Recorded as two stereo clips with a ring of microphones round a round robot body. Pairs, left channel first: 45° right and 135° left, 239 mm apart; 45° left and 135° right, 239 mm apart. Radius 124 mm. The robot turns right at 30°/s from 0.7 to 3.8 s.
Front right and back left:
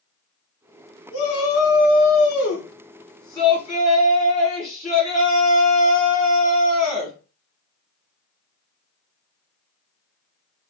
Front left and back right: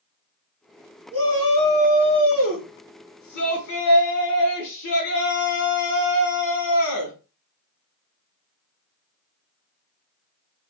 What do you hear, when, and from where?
1.1 s a shout: 35° right, 1.2 m; by 7.2 s 45° left, 1.2 m